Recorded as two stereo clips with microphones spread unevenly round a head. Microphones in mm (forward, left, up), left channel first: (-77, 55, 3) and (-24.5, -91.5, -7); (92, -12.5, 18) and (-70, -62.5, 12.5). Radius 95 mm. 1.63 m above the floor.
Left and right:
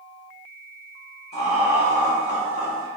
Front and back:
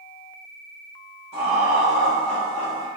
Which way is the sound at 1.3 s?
120° left.